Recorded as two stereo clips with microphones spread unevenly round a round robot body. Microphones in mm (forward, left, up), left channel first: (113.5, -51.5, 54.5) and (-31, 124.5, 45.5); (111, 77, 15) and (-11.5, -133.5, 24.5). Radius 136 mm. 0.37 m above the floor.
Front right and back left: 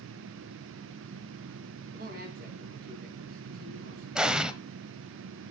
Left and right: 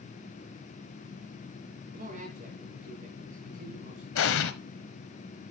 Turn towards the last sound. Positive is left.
turn(degrees=45)